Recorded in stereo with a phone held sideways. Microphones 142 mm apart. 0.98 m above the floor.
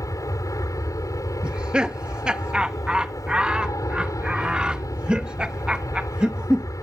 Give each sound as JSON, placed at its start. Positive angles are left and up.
{"t": 0.0, "sound": "an aircraft", "side_deg": 25}
{"t": 1.4, "sound": "laughter", "side_deg": -5}